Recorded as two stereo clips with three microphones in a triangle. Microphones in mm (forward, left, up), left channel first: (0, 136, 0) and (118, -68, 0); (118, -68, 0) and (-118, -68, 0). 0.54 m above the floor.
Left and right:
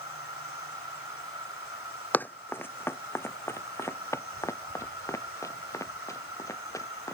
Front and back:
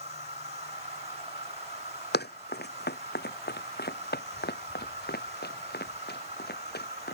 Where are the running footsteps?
40° left; by 7.2 s 45° left.